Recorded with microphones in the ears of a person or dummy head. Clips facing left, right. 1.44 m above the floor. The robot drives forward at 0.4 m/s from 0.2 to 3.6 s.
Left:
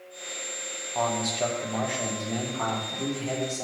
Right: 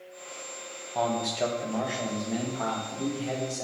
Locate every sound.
0.9 s a man speaking: 10° right (ahead or behind), 1.2 m; by 3.6 s 5° right (ahead or behind), 2 m